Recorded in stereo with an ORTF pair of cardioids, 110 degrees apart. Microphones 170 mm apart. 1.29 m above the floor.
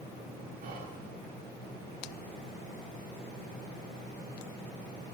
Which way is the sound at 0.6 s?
60° right.